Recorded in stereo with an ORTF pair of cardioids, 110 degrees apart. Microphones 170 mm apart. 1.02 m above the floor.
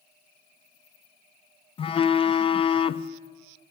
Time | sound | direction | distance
1.8 | a phone buzzing | 35° left | 0.5 m